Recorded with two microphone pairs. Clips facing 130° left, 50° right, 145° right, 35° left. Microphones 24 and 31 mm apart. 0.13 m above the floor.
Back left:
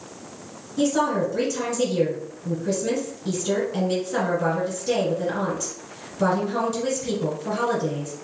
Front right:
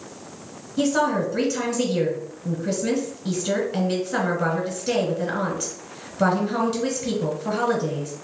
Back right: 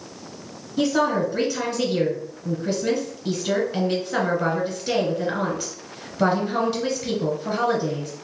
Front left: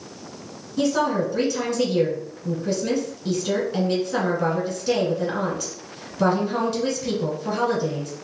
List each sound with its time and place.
0.8 s a woman speaking: 65° right, 1.4 m